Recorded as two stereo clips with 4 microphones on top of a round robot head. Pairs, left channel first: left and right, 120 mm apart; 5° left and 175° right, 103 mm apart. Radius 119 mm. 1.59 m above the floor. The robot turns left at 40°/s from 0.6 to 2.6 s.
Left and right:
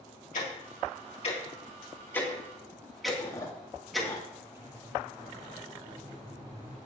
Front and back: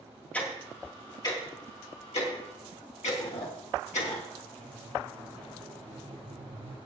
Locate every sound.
0.3 s ticking: 80° left, 2.5 m; by 4.1 s straight ahead, 2.5 m
3.1 s chewing: 30° left, 2.5 m
4.5 s a squeak: 155° right, 7 m